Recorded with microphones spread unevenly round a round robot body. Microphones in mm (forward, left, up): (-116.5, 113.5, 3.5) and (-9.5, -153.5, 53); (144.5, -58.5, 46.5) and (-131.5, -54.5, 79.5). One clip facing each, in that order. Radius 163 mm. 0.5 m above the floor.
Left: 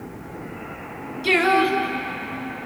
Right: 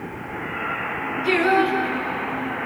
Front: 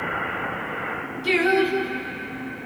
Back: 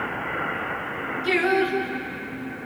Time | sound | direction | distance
1.2 | singing | 80° left | 4 m